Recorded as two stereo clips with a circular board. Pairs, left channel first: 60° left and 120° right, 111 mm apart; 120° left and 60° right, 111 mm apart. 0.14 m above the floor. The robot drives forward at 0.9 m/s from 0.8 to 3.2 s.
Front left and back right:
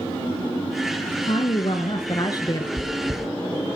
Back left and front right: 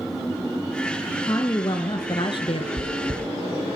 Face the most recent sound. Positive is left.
turn(degrees=-25)